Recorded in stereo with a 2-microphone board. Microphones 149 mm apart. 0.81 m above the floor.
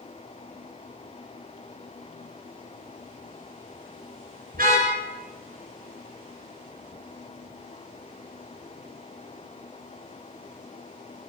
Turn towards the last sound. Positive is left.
turn(degrees=-75)  # may be behind; listen again after turning